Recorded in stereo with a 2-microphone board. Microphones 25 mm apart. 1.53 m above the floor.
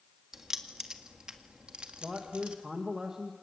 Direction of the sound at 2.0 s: 25° right (ahead or behind).